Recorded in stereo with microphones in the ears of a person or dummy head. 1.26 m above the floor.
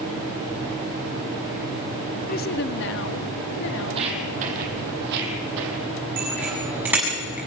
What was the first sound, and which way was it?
A woman speaking, 35° left (ahead or behind).